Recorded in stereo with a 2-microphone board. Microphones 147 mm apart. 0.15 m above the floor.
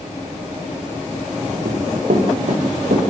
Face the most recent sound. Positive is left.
turn(degrees=-90)